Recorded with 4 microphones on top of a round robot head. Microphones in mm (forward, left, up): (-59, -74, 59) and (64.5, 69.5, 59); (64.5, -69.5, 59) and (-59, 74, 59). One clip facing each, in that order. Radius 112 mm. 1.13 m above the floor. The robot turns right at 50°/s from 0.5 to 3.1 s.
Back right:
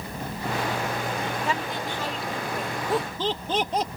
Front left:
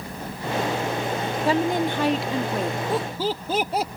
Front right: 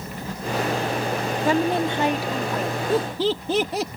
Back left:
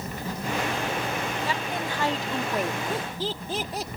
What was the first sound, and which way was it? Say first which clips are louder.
A woman speaking: front left 8 dB, front right 10 dB; 10° right.